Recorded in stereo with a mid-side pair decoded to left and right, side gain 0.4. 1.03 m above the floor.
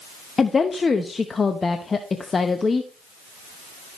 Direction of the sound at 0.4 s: 35° left.